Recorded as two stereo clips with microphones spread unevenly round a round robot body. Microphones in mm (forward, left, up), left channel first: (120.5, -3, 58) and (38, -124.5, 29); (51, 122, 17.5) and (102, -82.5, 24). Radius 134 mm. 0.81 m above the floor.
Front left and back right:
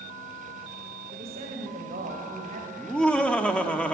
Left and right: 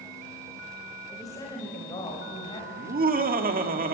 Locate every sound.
1.1 s a woman speaking: straight behind, 2.5 m
2.8 s laughter: 30° right, 2 m